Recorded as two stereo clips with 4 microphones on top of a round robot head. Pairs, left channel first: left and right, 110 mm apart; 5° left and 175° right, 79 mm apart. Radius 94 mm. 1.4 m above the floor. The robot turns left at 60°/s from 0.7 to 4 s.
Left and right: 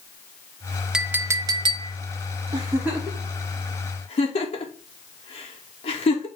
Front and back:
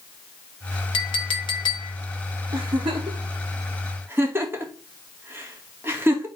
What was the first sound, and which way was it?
A clink, 5° right.